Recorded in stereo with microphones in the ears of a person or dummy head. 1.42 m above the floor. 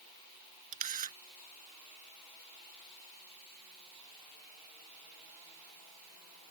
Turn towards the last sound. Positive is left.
turn(degrees=-40)  # may be behind; listen again after turning